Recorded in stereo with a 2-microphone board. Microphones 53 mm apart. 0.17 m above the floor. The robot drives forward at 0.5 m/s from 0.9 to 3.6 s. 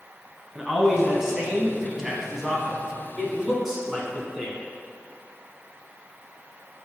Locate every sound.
0.6 s a man speaking: 10° right (ahead or behind), 1.1 m; by 4.6 s 5° right (ahead or behind), 1.2 m